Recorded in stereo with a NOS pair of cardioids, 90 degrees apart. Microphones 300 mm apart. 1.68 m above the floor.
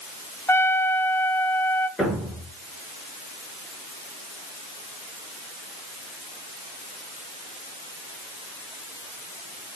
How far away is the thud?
About 6.5 m.